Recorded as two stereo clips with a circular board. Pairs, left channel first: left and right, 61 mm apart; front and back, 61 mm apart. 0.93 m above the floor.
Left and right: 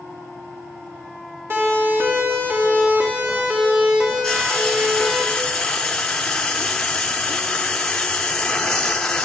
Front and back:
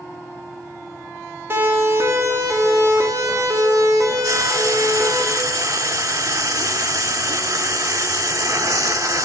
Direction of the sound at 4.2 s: 170° left.